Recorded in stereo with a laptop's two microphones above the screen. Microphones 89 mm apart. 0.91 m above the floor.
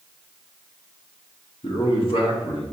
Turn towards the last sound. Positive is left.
turn(degrees=75)  # may be behind; listen again after turning